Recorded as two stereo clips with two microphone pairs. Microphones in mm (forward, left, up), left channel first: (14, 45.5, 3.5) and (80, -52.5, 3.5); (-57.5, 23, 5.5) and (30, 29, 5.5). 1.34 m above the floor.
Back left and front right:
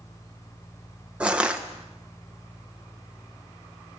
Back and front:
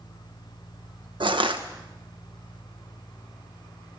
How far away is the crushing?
About 1.4 m.